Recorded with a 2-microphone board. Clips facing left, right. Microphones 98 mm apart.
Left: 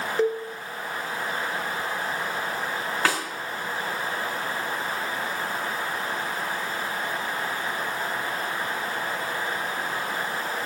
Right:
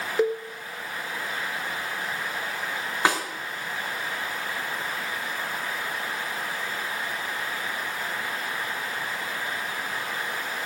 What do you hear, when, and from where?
0.2 s a cowbell: 5° right (ahead or behind), 1.5 m
3.0 s a snare drum: 15° right (ahead or behind), 4.5 m